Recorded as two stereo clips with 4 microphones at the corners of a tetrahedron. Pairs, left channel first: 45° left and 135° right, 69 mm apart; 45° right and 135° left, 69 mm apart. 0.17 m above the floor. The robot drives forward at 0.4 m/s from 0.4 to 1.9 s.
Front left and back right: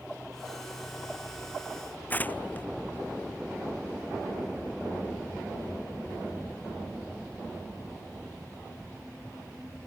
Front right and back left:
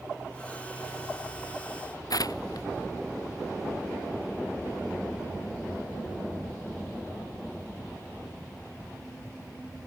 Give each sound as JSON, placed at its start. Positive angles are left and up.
{"t": 2.1, "sound": "tearing paper", "azimuth_deg": -20}